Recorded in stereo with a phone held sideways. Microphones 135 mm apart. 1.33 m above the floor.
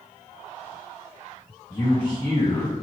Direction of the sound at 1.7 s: 35° left (ahead or behind).